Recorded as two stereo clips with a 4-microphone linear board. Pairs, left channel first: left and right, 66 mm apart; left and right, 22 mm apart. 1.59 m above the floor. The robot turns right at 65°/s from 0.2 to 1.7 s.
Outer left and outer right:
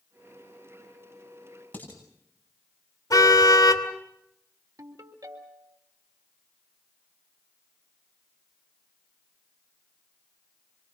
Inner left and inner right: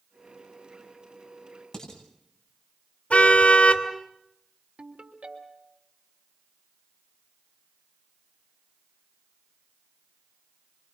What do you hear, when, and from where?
1.7 s dishes clattering: 20° left (ahead or behind), 9.5 m
3.1 s a car horn: 65° left (ahead or behind), 3 m
4.8 s a ringtone: 65° right (ahead or behind), 4 m